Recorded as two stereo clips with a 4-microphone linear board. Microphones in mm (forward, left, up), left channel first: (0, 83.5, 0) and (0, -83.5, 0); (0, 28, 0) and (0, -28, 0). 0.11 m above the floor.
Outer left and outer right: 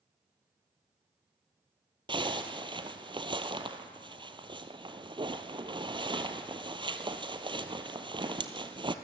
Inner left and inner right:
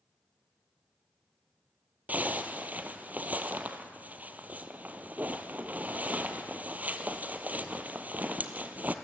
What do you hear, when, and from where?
2.1 s a zipper: 30° right (ahead or behind), 1.0 m